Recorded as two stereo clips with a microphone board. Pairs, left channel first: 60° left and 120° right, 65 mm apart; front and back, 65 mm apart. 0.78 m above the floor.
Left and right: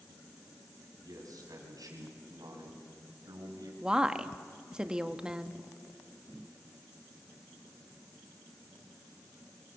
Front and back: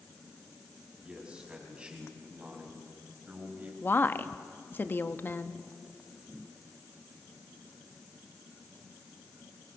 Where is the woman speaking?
45° right, 1.0 m.